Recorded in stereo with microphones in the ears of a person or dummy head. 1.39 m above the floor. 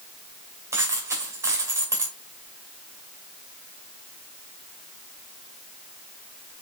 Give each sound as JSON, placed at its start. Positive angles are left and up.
{"t": 0.7, "sound": "a dropped coin", "side_deg": -15, "distance_m": 2.5}